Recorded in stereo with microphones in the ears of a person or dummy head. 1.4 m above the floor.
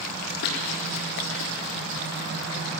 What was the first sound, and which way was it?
Running footsteps, 55° left (ahead or behind).